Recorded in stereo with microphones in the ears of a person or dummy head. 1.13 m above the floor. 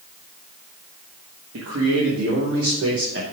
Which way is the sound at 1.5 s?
80° right.